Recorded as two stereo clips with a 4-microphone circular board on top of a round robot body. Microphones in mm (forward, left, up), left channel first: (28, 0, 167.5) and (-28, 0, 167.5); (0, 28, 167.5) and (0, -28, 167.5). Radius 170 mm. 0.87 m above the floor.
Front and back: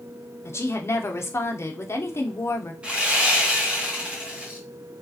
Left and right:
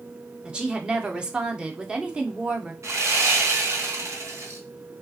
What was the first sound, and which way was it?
A woman speaking, 20° right.